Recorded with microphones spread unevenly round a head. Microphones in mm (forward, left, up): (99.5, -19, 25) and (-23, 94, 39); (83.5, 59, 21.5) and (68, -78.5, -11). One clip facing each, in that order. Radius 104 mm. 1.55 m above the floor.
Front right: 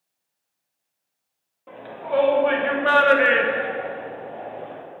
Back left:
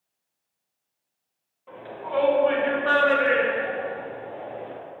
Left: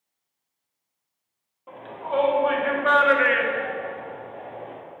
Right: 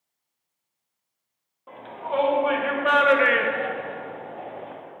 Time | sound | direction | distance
1.7 | a shout | straight ahead | 2.5 m